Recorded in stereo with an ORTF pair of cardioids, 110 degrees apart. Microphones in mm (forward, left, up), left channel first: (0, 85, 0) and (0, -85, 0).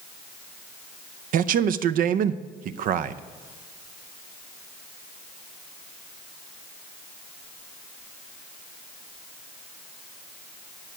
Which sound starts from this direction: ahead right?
A man speaking, at 1.3 s.